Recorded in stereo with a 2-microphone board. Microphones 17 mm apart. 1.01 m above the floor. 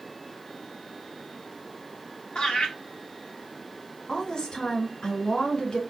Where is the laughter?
70° left (ahead or behind), 2 m.